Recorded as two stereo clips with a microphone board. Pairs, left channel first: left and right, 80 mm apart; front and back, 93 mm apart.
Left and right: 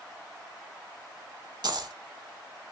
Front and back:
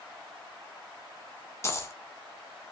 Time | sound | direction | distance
1.6 | a dropped coin | 60° right | 0.8 m